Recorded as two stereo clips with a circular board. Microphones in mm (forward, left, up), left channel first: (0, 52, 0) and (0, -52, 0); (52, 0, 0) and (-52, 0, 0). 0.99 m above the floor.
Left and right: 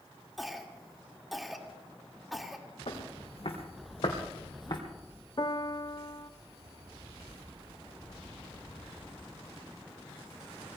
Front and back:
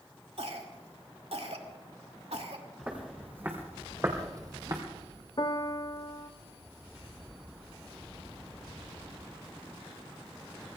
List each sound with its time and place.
0.4 s a cough: straight behind, 2.5 m
2.9 s footsteps: 105° left, 4 m; by 4.8 s 130° left, 2.5 m
5.4 s a piano: 45° left, 0.7 m